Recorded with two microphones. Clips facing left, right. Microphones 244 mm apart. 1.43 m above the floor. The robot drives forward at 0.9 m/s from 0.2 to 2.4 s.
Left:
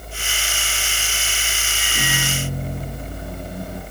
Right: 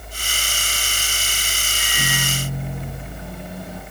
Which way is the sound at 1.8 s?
45° left (ahead or behind).